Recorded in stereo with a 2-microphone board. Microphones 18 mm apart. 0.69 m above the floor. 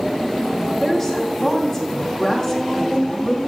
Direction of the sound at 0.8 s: 20° left (ahead or behind).